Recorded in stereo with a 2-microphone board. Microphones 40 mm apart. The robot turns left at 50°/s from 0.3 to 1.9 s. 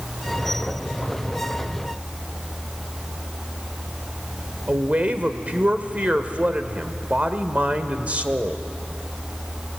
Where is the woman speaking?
35° right (ahead or behind), 1.2 m.